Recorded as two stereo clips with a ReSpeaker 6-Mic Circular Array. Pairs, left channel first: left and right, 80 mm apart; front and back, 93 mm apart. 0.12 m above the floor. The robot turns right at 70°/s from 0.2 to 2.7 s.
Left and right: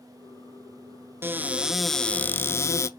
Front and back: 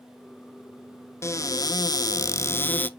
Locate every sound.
1.2 s a cupboard door: 45° right, 0.5 m; by 2.9 s 60° left, 0.5 m